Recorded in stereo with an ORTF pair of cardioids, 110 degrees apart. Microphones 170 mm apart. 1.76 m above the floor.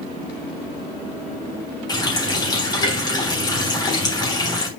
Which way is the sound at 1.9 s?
25° left.